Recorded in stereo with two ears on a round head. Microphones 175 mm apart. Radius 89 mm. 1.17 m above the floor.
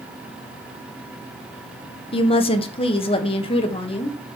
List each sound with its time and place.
2.1 s a woman speaking: 30° left (ahead or behind), 0.9 m